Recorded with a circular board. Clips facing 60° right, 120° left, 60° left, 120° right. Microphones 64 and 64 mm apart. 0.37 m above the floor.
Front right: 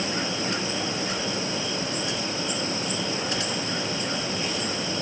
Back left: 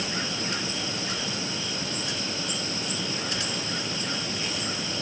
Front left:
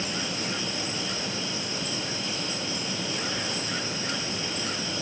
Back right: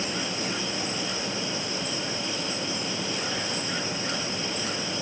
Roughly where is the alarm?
No alarm in this recording.